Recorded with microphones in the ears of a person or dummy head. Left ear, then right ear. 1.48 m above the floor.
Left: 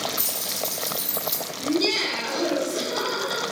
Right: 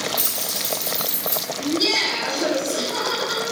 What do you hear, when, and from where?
0.2 s keys jangling: 5° right (ahead or behind), 1.8 m
1.6 s laughter: 85° right, 1.6 m